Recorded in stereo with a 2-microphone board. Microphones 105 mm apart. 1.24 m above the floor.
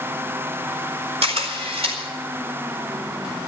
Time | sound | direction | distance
1.2 | a camera shutter | 85° right | 4.5 m